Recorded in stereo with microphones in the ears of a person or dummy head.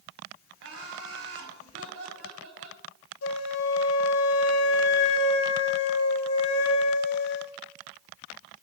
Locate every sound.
0.6 s laughter: 80° right, 3 m
3.2 s a flute: 70° left (ahead or behind), 1.0 m